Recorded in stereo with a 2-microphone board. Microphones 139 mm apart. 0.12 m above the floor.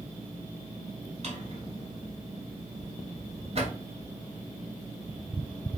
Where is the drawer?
45° right (ahead or behind), 0.9 m.